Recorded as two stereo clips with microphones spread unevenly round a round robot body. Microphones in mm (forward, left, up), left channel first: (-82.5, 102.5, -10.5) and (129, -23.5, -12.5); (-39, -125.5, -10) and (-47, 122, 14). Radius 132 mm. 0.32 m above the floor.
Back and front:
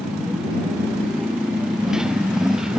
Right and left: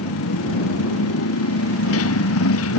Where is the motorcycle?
120° right.